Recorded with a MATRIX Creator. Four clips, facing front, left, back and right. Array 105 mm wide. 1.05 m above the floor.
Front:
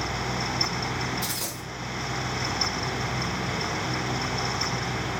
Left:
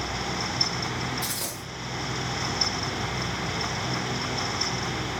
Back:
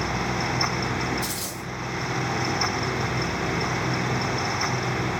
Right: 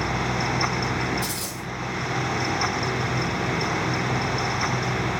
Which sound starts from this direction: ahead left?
A dropped coin, at 1.2 s.